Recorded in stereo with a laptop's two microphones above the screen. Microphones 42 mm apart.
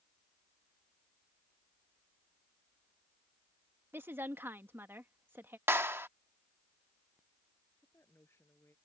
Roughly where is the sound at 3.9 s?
Right.